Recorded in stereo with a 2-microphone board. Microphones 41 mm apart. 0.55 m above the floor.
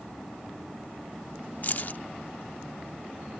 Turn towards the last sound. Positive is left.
turn(degrees=50)  # may be behind; listen again after turning